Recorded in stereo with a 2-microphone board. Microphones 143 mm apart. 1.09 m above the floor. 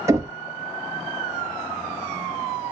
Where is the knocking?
20° right (ahead or behind), 0.7 m.